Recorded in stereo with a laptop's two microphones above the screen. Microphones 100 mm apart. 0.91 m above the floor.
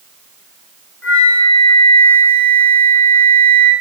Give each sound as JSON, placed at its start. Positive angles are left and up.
{"t": 1.0, "sound": "a flute", "side_deg": 15, "distance_m": 7.5}